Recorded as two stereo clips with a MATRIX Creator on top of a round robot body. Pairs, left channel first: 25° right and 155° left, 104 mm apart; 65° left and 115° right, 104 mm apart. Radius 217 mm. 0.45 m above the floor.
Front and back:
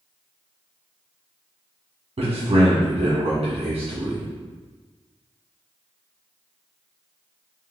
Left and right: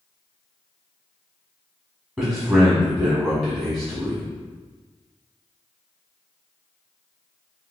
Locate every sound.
2.2 s a man speaking: 175° left, 1.6 m